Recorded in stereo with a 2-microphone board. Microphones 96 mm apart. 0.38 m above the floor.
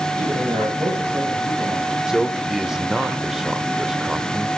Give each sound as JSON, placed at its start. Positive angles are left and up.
{"t": 0.2, "sound": "a man speaking", "side_deg": -35, "distance_m": 9.5}
{"t": 2.1, "sound": "a man speaking", "side_deg": -5, "distance_m": 0.9}